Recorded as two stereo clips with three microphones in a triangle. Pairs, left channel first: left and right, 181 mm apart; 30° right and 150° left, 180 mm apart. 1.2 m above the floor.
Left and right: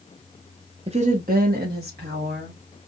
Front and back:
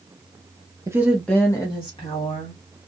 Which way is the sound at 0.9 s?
140° right.